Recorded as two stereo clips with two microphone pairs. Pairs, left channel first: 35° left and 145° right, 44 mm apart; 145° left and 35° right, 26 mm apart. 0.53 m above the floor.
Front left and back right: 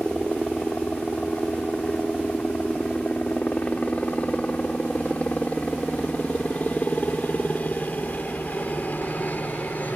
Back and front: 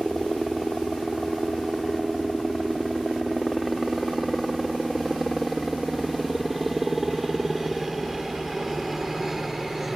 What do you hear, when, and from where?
0.0 s a helicopter: 70° left; by 10.0 s 45° left